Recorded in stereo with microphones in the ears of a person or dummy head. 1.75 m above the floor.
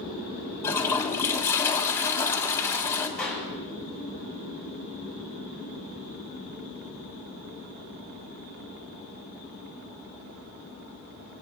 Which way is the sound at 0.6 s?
15° left (ahead or behind).